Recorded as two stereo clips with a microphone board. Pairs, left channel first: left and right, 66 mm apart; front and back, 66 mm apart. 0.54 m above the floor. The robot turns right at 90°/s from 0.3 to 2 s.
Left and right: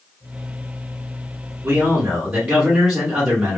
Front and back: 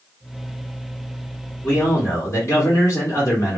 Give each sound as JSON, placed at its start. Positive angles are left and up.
{"t": 1.6, "sound": "a man speaking", "azimuth_deg": -45, "distance_m": 1.8}